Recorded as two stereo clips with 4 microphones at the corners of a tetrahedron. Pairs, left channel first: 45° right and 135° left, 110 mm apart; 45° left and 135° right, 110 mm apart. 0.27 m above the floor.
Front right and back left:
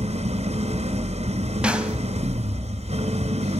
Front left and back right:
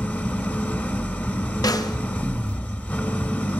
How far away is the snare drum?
About 0.8 m.